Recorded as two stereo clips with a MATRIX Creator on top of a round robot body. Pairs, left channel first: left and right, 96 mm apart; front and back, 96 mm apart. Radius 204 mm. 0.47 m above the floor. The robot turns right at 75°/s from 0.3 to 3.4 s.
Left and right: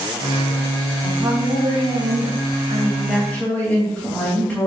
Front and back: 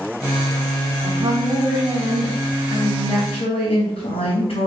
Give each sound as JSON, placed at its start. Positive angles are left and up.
{"t": 1.0, "sound": "a woman speaking", "azimuth_deg": -165, "distance_m": 3.5}